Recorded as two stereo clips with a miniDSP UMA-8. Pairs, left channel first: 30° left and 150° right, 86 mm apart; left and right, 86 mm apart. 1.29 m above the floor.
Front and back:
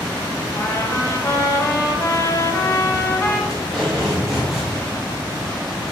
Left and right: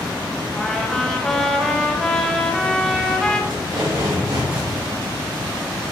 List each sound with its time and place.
0.6 s a trumpet: 10° left, 0.9 m
3.5 s tape being pulled: 65° right, 3 m